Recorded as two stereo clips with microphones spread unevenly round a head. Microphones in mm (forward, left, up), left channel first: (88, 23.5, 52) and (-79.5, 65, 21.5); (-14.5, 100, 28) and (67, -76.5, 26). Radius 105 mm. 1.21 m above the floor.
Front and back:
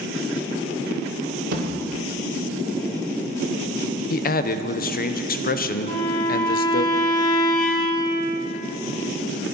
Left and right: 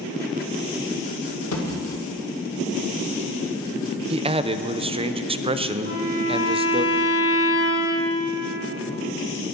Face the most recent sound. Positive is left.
turn(degrees=-55)